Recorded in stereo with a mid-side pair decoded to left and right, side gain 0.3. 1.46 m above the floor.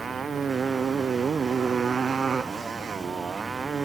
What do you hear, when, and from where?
0.0 s a motorcycle: 60° right